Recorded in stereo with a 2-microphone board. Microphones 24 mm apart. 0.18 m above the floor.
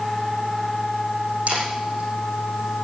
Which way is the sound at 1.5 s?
75° right (ahead or behind).